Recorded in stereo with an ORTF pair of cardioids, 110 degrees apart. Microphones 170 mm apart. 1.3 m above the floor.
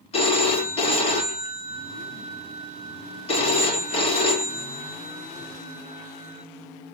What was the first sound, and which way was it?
A phone ringing, 35° left.